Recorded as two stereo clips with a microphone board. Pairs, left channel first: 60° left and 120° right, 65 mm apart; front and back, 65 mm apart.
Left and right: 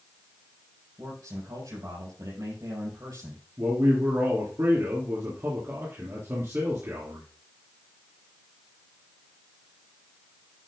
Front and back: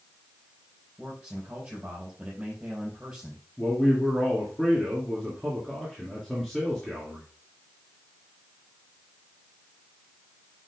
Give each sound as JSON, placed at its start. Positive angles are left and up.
{"t": 1.0, "sound": "a man speaking", "azimuth_deg": -105, "distance_m": 6.0}
{"t": 3.6, "sound": "a man speaking", "azimuth_deg": -90, "distance_m": 2.5}